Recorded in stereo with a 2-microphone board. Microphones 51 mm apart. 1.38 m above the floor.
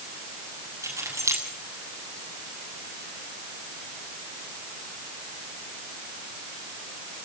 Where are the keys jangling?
75° right (ahead or behind), 7 m.